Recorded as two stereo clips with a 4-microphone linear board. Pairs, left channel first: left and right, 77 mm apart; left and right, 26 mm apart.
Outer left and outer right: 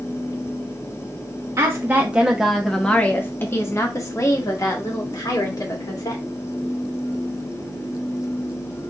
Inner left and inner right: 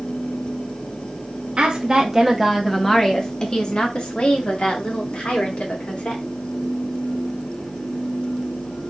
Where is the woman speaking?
35° right (ahead or behind), 1.0 m; by 6.2 s 60° left (ahead or behind), 2.5 m.